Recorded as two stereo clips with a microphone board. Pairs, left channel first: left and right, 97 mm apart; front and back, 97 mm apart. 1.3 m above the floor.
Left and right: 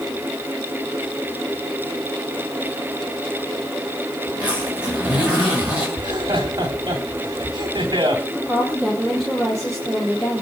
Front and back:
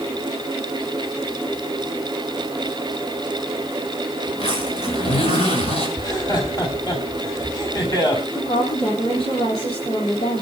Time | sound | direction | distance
4.3 | a zipper | 15° right | 7 m
6.0 | laughter | 45° right | 4 m
8.3 | a woman speaking | 5° left | 4 m